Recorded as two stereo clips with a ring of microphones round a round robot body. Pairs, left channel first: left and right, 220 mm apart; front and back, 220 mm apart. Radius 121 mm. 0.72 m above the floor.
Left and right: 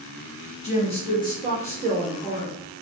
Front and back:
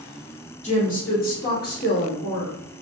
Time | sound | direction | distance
0.6 | a woman speaking | 45° left | 1.4 m